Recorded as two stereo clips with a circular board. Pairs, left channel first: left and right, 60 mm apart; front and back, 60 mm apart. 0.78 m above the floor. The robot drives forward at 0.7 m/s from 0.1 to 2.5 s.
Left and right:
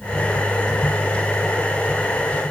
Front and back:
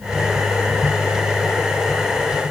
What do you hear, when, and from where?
Only background noise.